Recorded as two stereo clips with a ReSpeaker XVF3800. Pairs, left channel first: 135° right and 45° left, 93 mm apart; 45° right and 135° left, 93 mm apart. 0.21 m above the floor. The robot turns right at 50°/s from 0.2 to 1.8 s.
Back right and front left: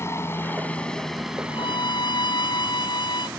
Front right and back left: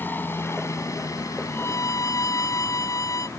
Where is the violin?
115° right; by 3.3 s 100° right.